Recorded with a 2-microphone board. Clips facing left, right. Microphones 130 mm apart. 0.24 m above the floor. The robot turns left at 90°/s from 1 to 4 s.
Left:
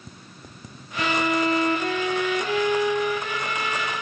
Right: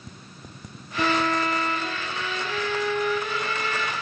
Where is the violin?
165° right, 1.2 m; by 3.9 s 70° right, 1.2 m.